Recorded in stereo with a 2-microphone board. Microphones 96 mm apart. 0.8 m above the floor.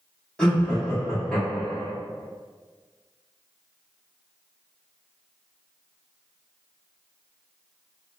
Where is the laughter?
10° left (ahead or behind), 0.9 m.